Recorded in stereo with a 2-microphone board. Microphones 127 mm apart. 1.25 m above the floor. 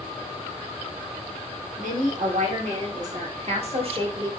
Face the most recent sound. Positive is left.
turn(degrees=-35)  # may be behind; listen again after turning